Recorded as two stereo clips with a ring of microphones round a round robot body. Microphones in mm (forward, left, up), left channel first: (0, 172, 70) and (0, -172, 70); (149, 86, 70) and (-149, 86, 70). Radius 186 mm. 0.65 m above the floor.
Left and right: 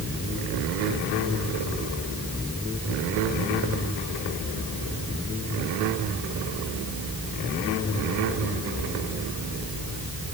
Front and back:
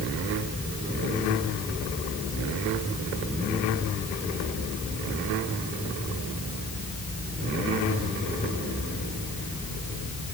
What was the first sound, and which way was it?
Only background noise.